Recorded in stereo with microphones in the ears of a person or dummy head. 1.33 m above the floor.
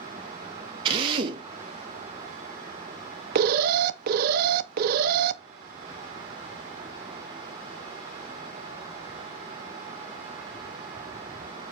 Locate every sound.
0.8 s a drill: 25° right (ahead or behind), 2 m
3.4 s an alarm: 50° right (ahead or behind), 0.7 m